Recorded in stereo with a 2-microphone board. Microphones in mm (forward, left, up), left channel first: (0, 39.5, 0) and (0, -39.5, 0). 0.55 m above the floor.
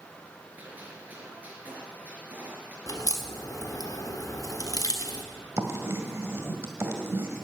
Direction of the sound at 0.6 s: 20° right (ahead or behind).